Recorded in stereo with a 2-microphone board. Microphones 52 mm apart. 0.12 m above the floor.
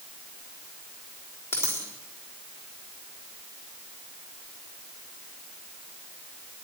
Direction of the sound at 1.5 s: 55° left (ahead or behind).